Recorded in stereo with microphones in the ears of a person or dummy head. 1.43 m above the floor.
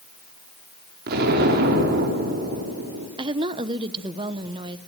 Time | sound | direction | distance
1.1 | an explosion | 55° right (ahead or behind) | 4 m
3.2 | a woman speaking | 25° right (ahead or behind) | 1.0 m